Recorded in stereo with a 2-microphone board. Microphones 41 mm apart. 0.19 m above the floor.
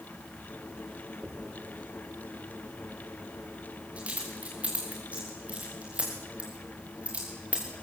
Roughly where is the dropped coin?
Right.